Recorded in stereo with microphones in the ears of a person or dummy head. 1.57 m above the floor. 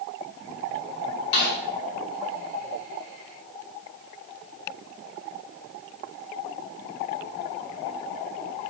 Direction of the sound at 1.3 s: 55° left (ahead or behind).